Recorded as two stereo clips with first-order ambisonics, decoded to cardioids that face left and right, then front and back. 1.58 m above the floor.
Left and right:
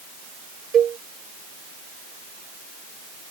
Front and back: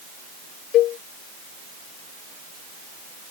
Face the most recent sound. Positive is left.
turn(degrees=-35)